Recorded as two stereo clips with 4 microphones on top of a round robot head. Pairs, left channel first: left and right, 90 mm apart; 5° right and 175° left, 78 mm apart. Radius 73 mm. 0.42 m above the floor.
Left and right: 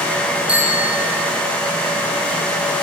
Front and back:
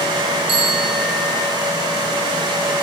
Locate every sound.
0.5 s a bicycle bell: 165° right, 6 m